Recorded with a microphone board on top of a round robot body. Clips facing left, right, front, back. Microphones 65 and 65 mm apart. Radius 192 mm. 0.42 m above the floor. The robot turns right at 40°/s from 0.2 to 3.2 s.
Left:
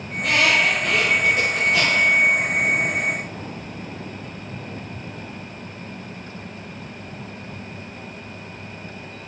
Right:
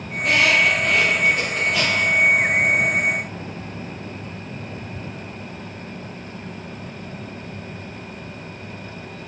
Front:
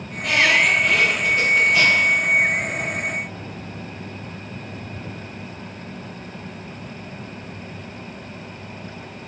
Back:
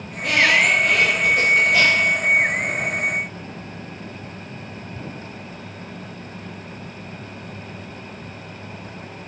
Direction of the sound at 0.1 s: 110° left.